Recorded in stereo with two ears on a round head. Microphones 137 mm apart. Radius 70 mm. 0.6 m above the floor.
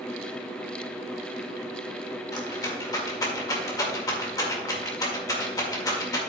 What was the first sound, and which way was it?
A rattle, 20° left (ahead or behind).